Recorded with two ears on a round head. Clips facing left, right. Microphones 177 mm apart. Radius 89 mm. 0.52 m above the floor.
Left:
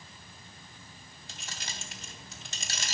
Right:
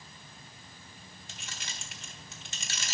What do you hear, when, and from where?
1.3 s keys jangling: 35° left (ahead or behind), 0.9 m